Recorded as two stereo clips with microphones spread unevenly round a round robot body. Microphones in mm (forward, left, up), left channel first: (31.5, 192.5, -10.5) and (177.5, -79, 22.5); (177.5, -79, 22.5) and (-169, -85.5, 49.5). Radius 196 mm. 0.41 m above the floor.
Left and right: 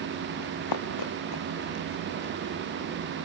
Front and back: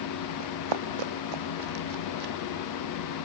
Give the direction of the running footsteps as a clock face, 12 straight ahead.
7 o'clock.